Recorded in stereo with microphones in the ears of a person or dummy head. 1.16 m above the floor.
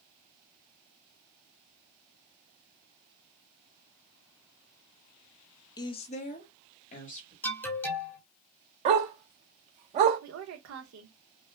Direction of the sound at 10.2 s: 75° right (ahead or behind).